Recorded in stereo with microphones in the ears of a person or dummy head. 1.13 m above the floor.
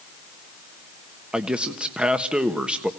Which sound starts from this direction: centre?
A man speaking, at 1.3 s.